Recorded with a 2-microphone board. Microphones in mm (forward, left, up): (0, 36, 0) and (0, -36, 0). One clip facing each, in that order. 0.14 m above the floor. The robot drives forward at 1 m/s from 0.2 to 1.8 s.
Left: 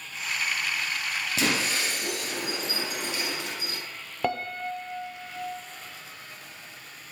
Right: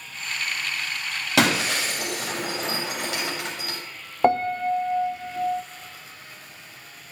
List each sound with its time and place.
1.4 s breaking glass: 85° right, 7 m; by 3.8 s 90° right, 7 m
4.2 s a piano: 35° right (ahead or behind), 0.8 m